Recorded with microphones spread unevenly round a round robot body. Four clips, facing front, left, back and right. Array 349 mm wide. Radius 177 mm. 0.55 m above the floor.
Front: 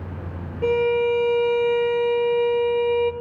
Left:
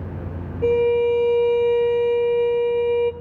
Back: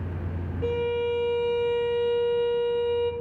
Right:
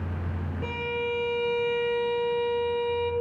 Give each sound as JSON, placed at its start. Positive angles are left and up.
{"t": 0.6, "sound": "a violin", "azimuth_deg": 35, "distance_m": 1.0}